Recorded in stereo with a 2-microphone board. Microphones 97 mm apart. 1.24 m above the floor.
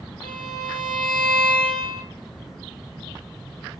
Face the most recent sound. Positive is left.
turn(degrees=-65)  # may be behind; listen again after turning